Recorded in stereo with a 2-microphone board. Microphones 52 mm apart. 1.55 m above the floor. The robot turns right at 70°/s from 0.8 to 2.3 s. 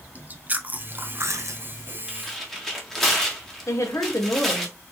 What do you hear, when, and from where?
0.1 s chewing: 145° right, 0.6 m; by 2.0 s 65° right, 0.6 m
2.1 s tearing paper: 10° right (ahead or behind), 1.3 m; by 4.7 s 5° left (ahead or behind), 1.3 m
3.7 s a woman speaking: 75° left (ahead or behind), 1.2 m